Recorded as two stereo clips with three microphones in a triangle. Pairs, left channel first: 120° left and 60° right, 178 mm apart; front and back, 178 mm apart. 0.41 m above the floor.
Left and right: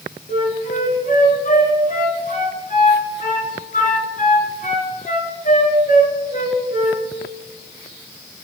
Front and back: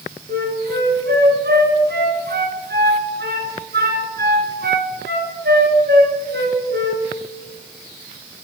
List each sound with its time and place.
0.3 s a flute: 160° left, 1.5 m